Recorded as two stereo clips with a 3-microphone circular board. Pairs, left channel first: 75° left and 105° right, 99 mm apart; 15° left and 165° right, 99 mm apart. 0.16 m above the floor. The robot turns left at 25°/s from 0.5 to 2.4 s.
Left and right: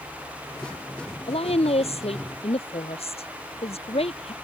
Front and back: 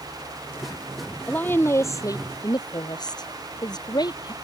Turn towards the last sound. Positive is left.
turn(degrees=65)